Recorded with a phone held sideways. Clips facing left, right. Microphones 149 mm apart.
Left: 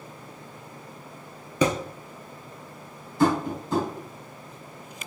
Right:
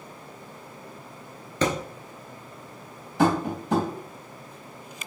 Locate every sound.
1.6 s a thud: 10° left (ahead or behind), 0.8 m
3.2 s tapping: 85° right, 2.5 m